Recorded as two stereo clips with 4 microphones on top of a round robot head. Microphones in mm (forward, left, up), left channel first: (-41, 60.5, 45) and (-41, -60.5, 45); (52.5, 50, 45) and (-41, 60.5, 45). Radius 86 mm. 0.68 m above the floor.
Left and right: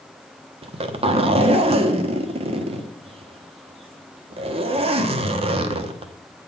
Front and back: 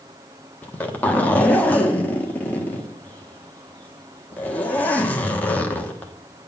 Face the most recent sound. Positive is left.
turn(degrees=-75)